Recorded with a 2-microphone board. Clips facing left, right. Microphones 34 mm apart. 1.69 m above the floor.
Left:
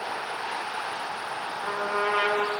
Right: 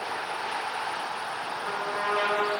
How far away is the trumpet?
About 4 m.